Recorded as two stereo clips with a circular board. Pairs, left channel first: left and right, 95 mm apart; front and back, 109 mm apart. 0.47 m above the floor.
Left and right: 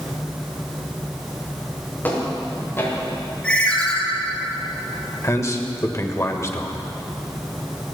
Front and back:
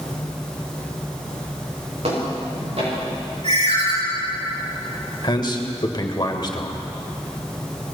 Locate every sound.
2.0 s footsteps: 160° left, 5.5 m; by 3.2 s 155° left, 7.5 m
3.4 s a ringtone: 165° left, 4.5 m
5.2 s a man speaking: 40° left, 1.3 m